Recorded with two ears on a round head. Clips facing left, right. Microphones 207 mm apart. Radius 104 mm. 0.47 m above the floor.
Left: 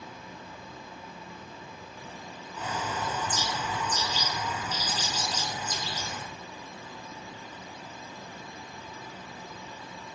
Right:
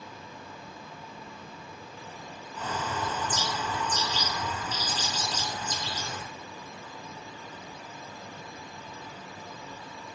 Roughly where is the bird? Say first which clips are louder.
Right 1 dB; centre.